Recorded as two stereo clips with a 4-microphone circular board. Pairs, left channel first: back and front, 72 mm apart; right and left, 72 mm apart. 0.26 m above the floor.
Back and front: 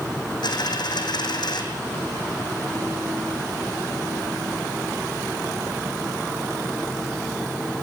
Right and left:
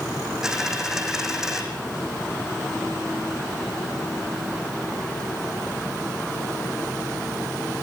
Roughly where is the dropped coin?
Behind.